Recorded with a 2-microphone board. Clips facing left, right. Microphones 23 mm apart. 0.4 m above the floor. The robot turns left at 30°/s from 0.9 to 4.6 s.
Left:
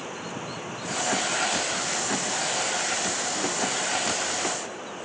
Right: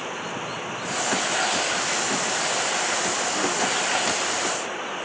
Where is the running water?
25° right; by 5.0 s 140° right.